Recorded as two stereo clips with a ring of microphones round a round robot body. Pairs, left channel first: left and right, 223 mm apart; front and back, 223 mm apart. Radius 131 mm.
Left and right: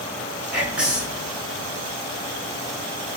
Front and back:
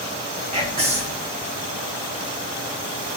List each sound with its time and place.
0.5 s whispering: 170° right, 0.9 m